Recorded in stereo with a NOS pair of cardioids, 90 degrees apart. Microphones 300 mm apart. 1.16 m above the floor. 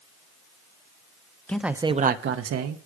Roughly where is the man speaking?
Ahead.